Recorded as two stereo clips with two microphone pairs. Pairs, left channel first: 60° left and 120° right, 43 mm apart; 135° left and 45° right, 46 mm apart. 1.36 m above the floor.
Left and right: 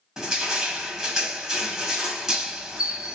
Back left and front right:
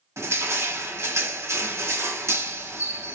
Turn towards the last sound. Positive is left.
turn(degrees=-40)